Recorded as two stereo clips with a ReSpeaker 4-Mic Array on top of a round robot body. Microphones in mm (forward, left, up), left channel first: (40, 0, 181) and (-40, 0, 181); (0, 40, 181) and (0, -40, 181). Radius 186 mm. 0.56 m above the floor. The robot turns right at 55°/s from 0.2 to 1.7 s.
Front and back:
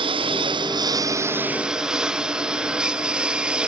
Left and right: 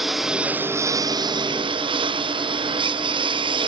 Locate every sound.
0.0 s a lawn mower: 175° right; by 3.7 s 100° right